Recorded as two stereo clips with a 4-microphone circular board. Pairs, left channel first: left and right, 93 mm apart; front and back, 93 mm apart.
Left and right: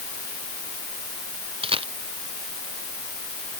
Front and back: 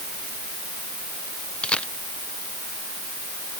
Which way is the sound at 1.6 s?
80° right.